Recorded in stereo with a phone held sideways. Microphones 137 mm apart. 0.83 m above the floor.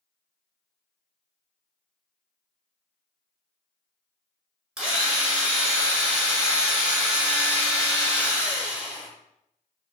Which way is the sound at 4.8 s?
5° right (ahead or behind).